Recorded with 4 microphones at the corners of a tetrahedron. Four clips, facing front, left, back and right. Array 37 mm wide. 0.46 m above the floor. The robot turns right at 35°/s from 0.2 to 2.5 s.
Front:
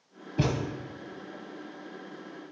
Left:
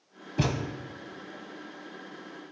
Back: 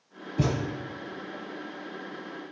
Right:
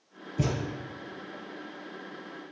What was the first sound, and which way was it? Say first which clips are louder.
A thud: left 1 dB, back 1 dB; 70° left.